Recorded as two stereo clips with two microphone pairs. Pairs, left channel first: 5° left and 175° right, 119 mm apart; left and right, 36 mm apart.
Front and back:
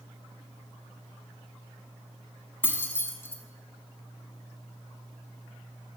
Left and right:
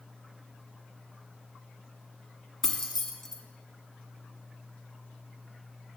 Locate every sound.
2.6 s keys jangling: 35° left, 0.8 m